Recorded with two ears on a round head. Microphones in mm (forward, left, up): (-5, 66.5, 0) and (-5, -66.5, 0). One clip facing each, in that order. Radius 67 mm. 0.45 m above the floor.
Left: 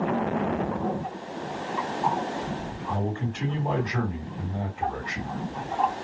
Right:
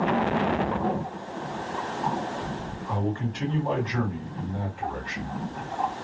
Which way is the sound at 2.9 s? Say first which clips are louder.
Right 1 dB; 25° left (ahead or behind).